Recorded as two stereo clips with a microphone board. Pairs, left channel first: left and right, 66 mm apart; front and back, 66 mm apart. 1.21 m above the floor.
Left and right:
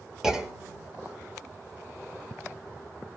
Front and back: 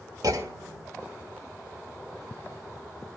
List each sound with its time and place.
0.2 s a clunk: 170° right, 1.6 m